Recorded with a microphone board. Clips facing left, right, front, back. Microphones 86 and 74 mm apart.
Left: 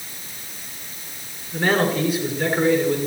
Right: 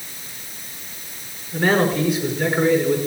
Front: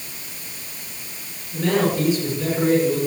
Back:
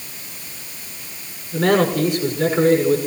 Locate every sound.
1.5 s a man speaking: straight behind, 7.5 m